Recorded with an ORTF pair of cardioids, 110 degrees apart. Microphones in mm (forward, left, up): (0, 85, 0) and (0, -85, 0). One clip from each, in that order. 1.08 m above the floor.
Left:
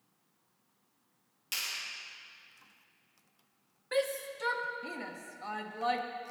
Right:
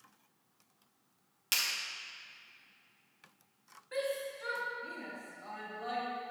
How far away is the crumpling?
No crumpling in this recording.